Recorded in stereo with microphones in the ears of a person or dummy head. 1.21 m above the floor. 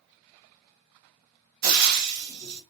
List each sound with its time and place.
1.6 s frying: 50° right (ahead or behind), 0.7 m